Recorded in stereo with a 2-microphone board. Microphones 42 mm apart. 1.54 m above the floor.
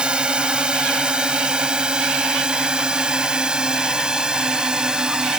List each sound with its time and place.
0.0 s a drone: 25° right (ahead or behind); by 5.4 s 20° right (ahead or behind)